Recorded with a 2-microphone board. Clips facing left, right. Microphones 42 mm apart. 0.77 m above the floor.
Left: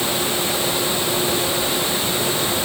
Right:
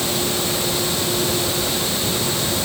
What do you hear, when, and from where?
Only background noise.